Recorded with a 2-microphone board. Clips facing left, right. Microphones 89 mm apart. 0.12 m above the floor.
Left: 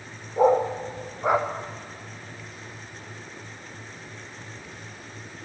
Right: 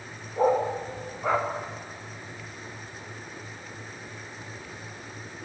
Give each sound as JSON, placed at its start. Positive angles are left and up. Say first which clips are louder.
{"t": 0.4, "sound": "a dog barking", "louder": "left 3 dB", "side_deg": 15, "distance_m": 3.0}